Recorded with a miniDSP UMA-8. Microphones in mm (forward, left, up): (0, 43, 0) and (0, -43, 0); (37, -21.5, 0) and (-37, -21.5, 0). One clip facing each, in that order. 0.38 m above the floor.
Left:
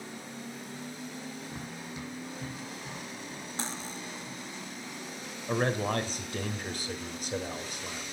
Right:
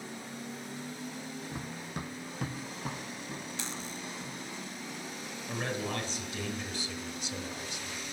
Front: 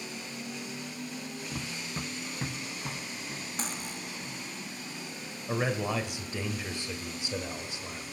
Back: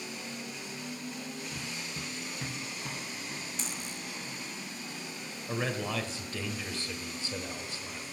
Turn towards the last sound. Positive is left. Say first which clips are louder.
# left 6 dB, front 3 dB
turn(degrees=65)